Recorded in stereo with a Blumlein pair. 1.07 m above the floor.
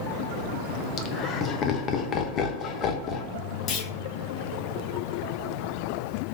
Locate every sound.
1.0 s laughter: 30° left, 0.7 m
3.7 s a clunk: 30° left, 0.8 m